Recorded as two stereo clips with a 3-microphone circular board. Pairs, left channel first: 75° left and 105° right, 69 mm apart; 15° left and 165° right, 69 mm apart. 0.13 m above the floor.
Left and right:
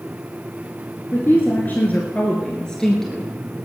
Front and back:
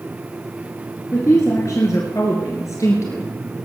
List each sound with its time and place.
1.1 s a woman speaking: 35° left, 2.5 m; by 3.3 s 15° right, 3 m